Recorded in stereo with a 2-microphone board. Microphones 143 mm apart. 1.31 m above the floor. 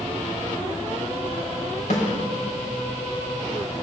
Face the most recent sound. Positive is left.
turn(degrees=70)  # may be behind; listen again after turning